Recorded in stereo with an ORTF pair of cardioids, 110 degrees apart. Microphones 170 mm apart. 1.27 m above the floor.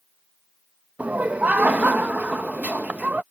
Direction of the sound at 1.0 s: 10° right.